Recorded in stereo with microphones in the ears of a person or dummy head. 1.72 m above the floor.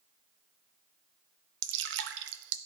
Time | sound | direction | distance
1.6 | dripping | 75° right (ahead or behind) | 0.7 m